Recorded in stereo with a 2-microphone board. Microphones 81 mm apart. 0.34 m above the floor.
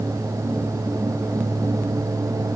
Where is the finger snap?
I don't hear a finger snap.